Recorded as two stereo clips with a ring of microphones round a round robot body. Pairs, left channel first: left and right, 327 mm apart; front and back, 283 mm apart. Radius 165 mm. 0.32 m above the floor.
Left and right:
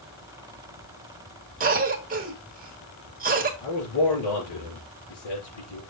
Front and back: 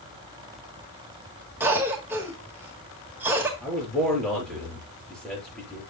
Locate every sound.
1.6 s a cough: 110° right, 1.3 m
3.6 s a man speaking: 85° left, 5.5 m